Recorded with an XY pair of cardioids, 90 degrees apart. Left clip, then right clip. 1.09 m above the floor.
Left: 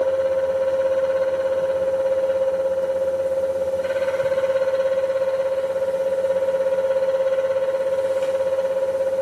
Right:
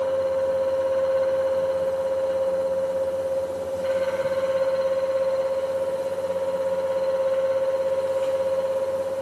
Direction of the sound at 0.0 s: 55° left.